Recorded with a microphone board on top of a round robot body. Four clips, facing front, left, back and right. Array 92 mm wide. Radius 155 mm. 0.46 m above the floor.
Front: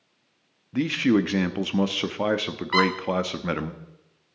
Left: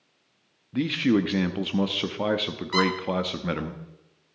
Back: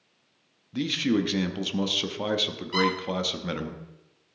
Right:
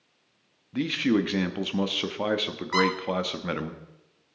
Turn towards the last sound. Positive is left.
turn(degrees=-25)